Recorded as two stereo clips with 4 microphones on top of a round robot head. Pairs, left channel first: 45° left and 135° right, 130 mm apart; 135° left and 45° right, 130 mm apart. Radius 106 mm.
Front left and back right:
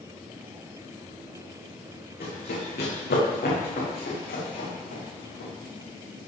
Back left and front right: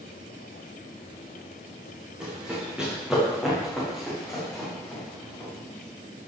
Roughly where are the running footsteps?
Ahead left.